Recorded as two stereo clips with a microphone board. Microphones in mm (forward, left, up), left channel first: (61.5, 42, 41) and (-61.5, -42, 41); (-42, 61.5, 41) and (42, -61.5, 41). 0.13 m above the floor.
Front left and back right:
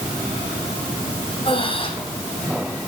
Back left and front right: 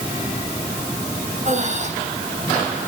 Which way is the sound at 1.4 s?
20° right.